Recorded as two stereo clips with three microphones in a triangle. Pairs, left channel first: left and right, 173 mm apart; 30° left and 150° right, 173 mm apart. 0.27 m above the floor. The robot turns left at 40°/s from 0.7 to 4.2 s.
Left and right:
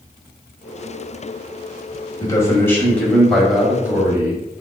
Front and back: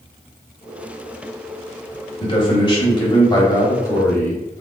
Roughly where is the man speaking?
Ahead left.